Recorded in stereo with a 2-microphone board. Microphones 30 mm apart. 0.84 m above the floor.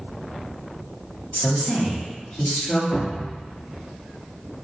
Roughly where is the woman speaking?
Left.